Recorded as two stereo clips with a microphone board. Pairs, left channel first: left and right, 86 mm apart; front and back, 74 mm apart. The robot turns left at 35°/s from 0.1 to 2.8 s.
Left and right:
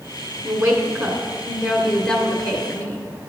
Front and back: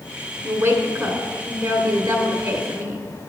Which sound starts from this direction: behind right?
A woman speaking, at 0.4 s.